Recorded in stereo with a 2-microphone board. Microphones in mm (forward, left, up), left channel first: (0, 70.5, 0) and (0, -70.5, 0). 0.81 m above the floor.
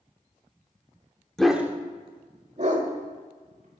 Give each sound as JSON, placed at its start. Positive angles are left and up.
{"t": 1.4, "sound": "a dog barking", "side_deg": 5, "distance_m": 0.8}